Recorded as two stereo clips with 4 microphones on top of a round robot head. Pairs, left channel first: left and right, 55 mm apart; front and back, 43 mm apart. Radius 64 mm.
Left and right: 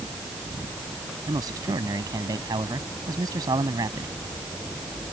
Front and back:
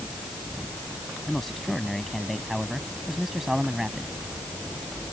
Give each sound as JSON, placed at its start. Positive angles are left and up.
{"t": 1.3, "sound": "a man speaking", "azimuth_deg": -90}